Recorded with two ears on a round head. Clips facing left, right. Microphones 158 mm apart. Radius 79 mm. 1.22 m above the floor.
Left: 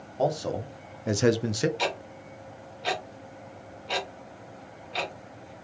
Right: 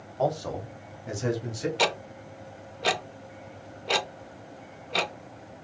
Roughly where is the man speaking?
Centre.